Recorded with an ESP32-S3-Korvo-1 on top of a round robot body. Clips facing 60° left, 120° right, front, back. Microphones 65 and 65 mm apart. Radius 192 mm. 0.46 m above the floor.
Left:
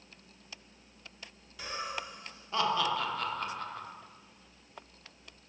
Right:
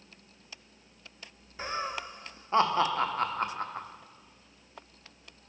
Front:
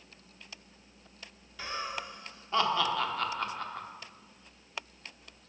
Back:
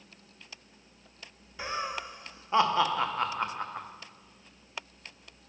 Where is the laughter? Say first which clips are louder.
Right 4 dB, back 3 dB; 125° right, 1.3 m.